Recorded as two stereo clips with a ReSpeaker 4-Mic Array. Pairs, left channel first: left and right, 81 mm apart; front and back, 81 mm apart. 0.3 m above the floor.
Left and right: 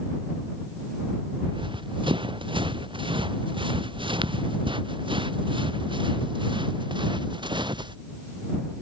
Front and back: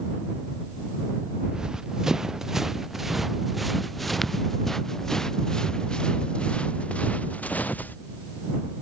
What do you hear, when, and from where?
1.4 s running footsteps: 100° right; by 8.0 s 70° right